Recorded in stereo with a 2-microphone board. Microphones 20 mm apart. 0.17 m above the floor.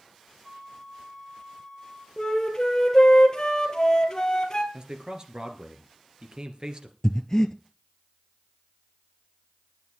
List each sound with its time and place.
0.4 s a flute: centre (ahead or behind), 5 m
2.2 s a flute: 35° left (ahead or behind), 2 m
4.7 s a man speaking: 40° right (ahead or behind), 2.5 m
7.0 s breathing: 30° left (ahead or behind), 1.1 m